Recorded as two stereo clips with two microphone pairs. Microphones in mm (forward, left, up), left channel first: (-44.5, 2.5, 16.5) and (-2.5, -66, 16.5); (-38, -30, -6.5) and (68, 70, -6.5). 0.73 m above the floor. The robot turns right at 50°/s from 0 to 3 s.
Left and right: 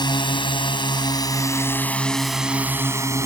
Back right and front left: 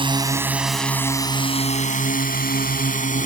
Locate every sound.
0.0 s a drone: 95° left; by 3.3 s 110° right